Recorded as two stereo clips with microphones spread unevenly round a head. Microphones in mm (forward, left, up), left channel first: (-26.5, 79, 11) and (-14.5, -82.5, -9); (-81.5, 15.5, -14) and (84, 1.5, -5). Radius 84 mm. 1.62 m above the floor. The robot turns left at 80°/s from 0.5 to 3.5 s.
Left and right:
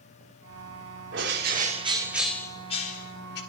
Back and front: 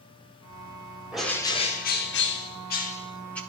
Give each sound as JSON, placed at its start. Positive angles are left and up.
{"t": 1.1, "sound": "a bird", "azimuth_deg": -90, "distance_m": 3.0}